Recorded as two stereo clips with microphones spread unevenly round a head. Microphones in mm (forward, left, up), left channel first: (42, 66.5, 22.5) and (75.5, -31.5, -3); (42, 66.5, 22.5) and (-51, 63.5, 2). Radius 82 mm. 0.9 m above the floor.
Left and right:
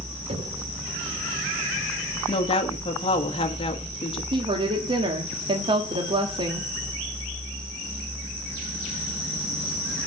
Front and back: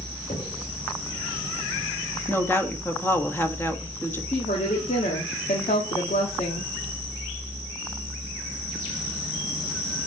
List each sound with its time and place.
0.3 s knocking: 50° right, 2.5 m
2.3 s a woman speaking: 75° left, 1.6 m
4.3 s a woman speaking: 35° right, 1.4 m